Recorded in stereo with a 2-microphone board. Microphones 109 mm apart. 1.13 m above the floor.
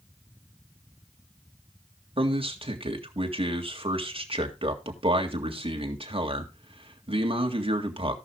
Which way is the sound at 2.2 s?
55° right (ahead or behind).